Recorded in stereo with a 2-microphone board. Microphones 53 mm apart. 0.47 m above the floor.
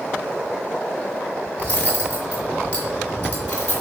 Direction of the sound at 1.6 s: 25° left (ahead or behind).